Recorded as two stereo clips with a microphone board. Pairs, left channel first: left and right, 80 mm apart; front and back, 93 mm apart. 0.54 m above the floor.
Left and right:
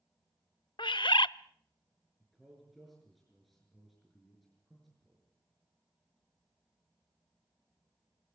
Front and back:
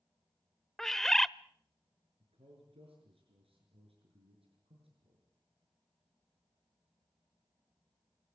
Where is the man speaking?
Straight behind, 7 m.